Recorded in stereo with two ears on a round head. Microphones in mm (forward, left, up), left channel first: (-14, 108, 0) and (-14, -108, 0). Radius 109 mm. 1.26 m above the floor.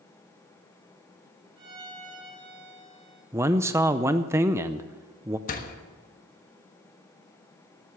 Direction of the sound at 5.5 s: 35° left (ahead or behind).